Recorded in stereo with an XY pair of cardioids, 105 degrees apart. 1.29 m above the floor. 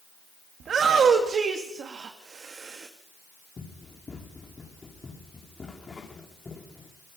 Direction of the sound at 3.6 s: 25° left.